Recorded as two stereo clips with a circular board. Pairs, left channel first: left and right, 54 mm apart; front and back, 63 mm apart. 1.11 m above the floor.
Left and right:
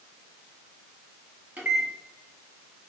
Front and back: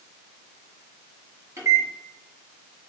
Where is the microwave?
140° right, 2.0 m.